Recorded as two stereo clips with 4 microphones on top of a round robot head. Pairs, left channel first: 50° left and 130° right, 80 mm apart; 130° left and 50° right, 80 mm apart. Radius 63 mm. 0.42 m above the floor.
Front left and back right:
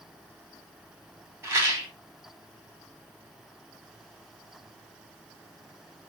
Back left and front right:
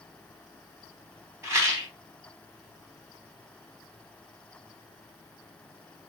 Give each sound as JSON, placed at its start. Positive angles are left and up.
{"t": 1.4, "sound": "a rattle", "azimuth_deg": -85, "distance_m": 1.9}